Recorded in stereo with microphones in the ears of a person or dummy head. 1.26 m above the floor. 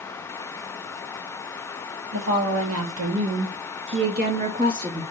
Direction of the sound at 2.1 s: 75° right (ahead or behind).